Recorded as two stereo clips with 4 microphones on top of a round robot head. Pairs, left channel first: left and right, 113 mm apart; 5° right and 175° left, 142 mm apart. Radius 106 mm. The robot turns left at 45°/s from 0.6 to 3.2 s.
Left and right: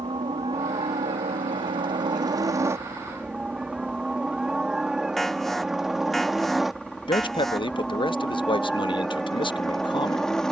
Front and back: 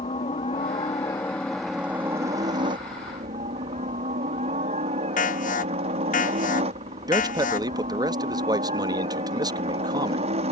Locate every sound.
0.0 s a helicopter: 45° right; by 10.5 s 170° left
5.2 s an alarm: straight ahead
7.1 s a man speaking: 120° left